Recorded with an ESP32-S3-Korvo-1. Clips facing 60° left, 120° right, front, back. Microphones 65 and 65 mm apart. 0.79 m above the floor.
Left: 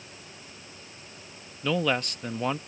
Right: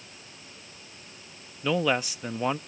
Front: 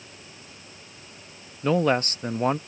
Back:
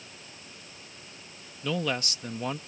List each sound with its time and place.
1.6 s a man speaking: 40° right